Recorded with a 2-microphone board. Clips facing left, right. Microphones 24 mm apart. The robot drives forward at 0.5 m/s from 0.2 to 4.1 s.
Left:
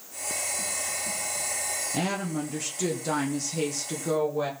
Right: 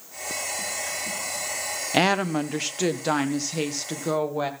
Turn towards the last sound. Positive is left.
turn(degrees=-25)  # may be behind; listen again after turning